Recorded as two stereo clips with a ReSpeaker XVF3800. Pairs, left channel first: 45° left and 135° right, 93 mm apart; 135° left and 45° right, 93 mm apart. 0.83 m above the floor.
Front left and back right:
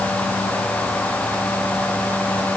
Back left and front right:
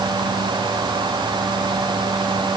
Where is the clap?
I don't hear a clap.